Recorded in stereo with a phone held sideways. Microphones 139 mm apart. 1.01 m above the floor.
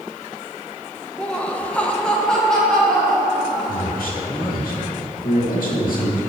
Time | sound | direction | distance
1.2 | laughter | 5° left (ahead or behind) | 0.6 m
3.7 | a man speaking | 80° left | 1.7 m